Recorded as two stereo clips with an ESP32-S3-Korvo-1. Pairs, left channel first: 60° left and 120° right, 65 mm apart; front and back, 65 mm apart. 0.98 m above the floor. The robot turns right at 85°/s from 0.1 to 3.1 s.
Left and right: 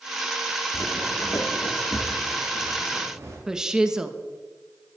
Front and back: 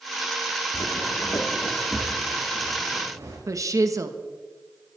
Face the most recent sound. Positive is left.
turn(degrees=160)